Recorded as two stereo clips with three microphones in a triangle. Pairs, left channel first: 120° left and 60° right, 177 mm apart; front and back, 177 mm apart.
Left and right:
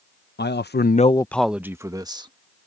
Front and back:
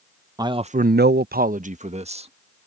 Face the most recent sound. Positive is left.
turn(degrees=-125)